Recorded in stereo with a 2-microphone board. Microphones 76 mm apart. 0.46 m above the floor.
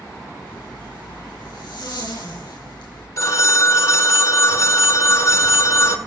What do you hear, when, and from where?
0.5 s a zipper: 80° left, 5 m
3.2 s a phone ringing: 45° left (ahead or behind), 1.1 m